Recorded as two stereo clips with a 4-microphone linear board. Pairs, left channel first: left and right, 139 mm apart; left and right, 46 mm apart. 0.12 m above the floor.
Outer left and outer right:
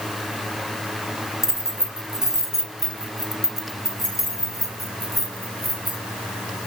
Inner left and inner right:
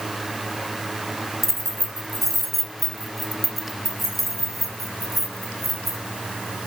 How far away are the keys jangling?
About 1.1 m.